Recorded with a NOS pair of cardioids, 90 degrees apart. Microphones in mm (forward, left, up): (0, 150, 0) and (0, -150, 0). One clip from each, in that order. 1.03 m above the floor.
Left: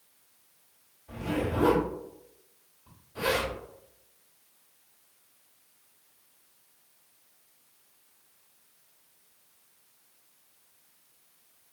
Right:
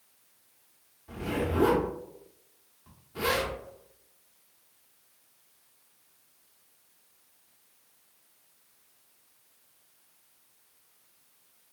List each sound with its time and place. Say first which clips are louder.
1.1 s a zipper: even; 50° right, 1.5 m